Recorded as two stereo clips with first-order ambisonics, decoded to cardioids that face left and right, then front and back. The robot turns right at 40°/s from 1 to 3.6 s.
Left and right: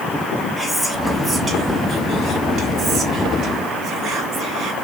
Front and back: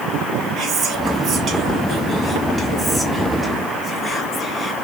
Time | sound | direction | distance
0.6 | whispering | straight behind | 0.9 m